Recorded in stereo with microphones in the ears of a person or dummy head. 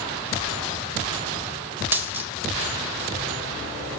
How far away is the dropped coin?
About 1.6 m.